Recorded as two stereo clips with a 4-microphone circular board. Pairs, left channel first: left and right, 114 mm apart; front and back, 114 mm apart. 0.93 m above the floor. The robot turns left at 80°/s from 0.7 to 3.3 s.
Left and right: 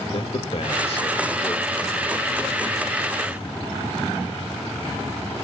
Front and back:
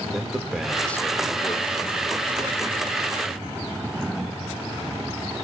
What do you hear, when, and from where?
0.1 s a man speaking: 95° left, 1.5 m; by 1.8 s 5° left, 1.5 m